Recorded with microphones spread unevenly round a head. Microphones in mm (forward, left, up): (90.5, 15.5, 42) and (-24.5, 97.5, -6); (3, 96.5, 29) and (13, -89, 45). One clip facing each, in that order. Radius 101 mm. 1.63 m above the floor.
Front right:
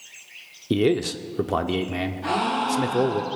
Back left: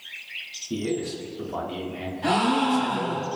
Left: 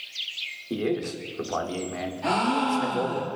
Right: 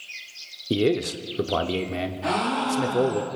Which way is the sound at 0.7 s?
35° right.